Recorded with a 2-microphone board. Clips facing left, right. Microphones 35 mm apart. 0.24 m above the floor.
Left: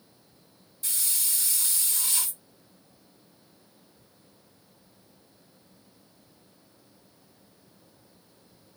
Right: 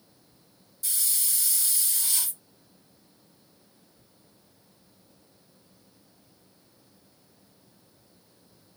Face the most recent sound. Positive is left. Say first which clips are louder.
# even
turn(degrees=40)  # may be behind; listen again after turning